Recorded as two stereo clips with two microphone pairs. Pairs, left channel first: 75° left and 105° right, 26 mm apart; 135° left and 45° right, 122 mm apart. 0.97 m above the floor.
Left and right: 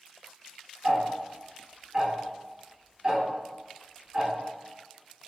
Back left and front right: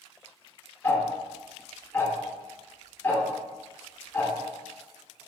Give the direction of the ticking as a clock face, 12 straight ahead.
5 o'clock.